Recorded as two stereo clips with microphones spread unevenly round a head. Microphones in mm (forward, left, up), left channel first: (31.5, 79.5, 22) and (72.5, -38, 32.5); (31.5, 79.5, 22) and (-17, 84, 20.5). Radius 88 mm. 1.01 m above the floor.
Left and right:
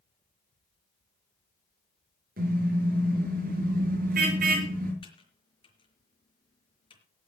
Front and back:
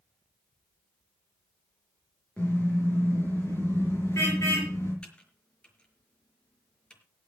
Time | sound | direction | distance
2.4 | a car horn | 85° right | 8 m
5.0 | typing on a keyboard | 60° left | 5 m